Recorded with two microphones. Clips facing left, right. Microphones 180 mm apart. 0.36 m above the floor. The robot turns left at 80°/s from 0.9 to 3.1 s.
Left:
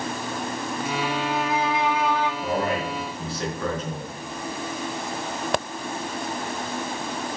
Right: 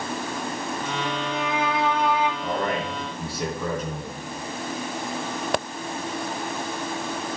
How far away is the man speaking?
About 3.5 m.